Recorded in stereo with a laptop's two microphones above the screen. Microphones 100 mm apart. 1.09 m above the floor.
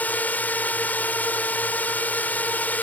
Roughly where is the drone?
Centre.